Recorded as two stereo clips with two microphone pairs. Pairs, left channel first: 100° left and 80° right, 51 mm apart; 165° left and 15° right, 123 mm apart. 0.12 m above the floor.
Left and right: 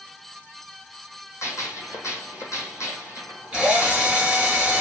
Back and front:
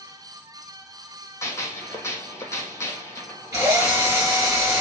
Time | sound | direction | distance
1.4 | a gunshot | 100° left | 1.0 m
3.5 | a drill | 30° right | 1.8 m